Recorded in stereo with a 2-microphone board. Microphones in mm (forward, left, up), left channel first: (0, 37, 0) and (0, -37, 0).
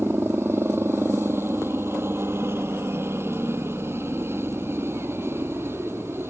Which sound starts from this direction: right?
A helicopter, at 0.0 s.